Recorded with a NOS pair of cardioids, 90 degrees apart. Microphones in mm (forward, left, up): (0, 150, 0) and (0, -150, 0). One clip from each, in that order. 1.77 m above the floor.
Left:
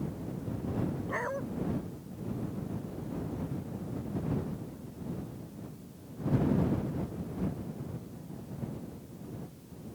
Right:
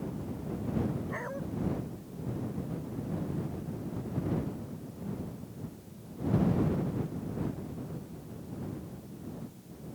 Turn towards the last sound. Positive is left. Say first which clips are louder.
# left 4 dB
turn(degrees=40)